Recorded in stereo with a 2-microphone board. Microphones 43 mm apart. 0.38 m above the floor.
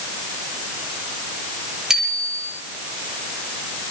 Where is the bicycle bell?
10° right (ahead or behind), 7.5 m.